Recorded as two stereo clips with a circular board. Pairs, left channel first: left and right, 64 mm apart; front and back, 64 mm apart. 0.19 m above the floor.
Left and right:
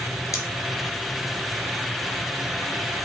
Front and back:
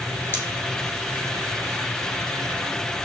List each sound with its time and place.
0.3 s scissors: 55° left, 1.2 m